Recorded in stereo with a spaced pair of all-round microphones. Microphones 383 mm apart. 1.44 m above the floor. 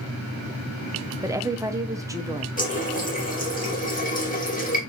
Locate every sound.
1.2 s a woman speaking: 10° right (ahead or behind), 0.6 m
2.6 s a running tap: 20° left (ahead or behind), 1.4 m